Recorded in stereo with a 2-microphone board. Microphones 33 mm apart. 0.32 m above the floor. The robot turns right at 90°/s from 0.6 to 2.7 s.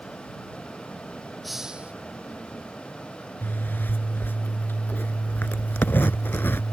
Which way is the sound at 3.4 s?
80° left.